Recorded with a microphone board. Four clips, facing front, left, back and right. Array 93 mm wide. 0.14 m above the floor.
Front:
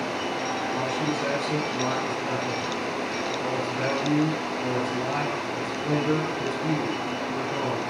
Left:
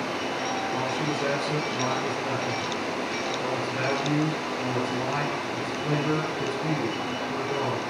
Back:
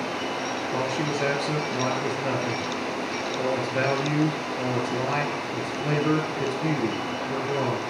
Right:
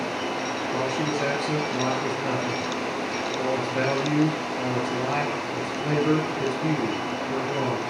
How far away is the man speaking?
About 2 m.